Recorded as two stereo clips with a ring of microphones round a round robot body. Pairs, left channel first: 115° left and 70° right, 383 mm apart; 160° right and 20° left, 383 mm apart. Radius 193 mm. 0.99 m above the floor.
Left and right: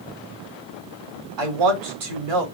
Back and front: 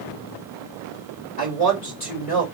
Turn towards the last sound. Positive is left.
turn(degrees=-90)